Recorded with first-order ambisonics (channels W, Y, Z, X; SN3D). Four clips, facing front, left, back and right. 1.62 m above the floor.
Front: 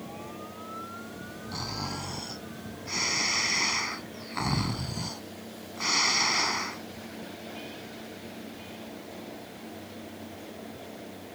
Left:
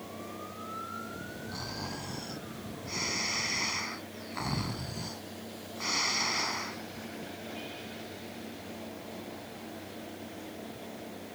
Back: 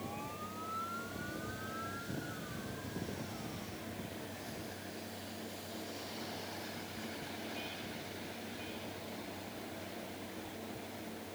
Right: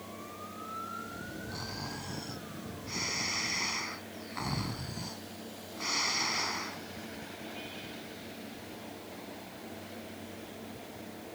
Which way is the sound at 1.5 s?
5° left.